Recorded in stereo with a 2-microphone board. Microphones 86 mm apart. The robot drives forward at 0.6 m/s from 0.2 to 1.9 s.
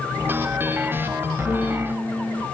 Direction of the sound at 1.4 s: 35° right (ahead or behind).